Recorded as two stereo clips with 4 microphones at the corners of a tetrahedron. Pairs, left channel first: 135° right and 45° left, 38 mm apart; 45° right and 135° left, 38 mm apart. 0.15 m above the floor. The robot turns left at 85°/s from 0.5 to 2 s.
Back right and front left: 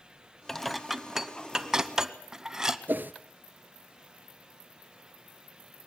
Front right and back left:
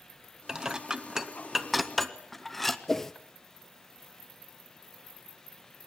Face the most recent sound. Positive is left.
turn(degrees=30)